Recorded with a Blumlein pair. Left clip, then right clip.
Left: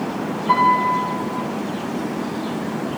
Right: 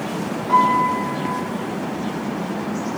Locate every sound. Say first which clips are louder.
0.5 s a piano: even; 30° left, 1.9 m